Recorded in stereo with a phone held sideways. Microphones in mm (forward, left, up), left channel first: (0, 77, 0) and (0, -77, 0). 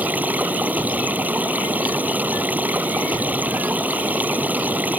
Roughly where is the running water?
Centre.